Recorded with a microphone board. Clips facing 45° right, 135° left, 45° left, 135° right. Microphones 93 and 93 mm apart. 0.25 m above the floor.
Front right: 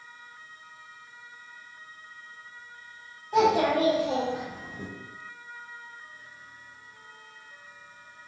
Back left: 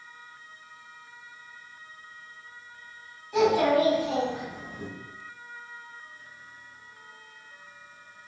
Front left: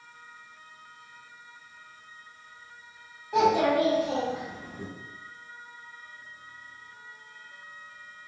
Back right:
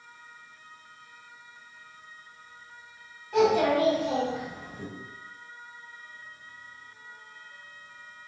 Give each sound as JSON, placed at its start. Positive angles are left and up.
{"t": 3.3, "sound": "a child speaking", "azimuth_deg": -20, "distance_m": 1.3}